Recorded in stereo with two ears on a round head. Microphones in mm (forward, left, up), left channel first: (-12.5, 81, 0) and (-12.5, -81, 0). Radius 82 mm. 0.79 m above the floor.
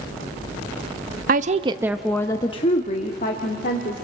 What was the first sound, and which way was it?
A woman speaking, 50° right (ahead or behind).